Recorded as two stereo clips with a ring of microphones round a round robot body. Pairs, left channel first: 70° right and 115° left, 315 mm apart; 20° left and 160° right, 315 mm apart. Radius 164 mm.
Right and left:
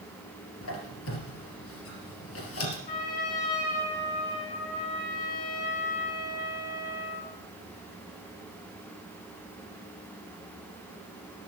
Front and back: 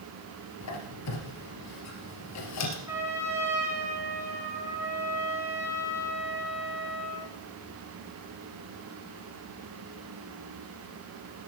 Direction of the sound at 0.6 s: 20° right.